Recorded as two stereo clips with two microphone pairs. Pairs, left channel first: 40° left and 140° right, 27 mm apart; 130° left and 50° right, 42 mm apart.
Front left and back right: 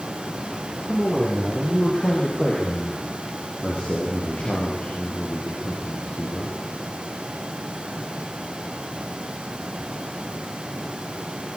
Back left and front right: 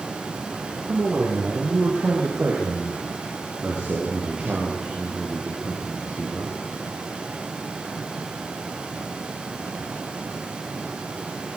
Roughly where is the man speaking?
Ahead.